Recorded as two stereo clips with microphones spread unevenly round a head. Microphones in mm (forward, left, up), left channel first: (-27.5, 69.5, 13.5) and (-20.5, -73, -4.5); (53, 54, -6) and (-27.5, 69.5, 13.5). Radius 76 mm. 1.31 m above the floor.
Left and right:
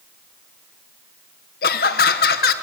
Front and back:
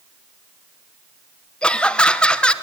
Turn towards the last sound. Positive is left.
turn(degrees=60)